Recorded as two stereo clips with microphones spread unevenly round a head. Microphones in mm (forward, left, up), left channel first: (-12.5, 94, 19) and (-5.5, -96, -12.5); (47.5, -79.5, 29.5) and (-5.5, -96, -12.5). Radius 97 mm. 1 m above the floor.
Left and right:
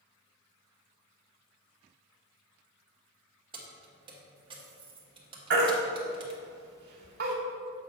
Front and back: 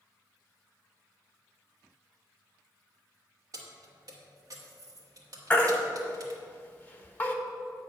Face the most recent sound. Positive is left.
turn(degrees=-55)